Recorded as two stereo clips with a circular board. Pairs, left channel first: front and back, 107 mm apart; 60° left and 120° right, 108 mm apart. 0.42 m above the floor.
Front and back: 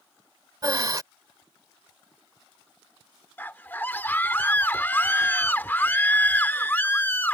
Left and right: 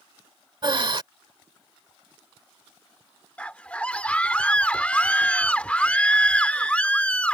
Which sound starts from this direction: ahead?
A scream, at 3.4 s.